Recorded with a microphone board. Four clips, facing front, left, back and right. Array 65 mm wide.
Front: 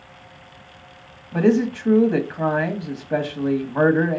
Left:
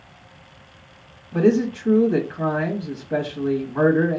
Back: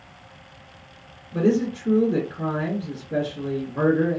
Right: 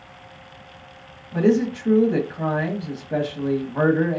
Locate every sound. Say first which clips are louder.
1.3 s a man speaking: left 1 dB, front 3 dB; 5° right, 1.0 m